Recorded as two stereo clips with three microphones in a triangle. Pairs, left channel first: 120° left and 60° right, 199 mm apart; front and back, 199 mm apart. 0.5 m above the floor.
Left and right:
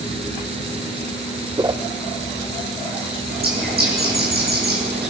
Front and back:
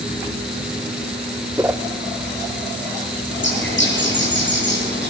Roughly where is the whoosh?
Right.